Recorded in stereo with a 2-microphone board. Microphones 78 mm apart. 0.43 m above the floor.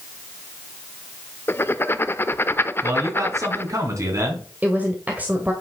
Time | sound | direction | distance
1.5 | writing | 30° left (ahead or behind) | 0.6 m
2.8 | a man speaking | 45° right (ahead or behind) | 3.5 m
4.6 | a woman speaking | 20° right (ahead or behind) | 1.4 m